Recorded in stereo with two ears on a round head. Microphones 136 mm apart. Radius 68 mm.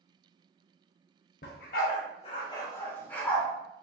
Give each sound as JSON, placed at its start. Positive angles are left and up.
{"t": 1.4, "sound": "a dog barking", "side_deg": 70, "distance_m": 0.7}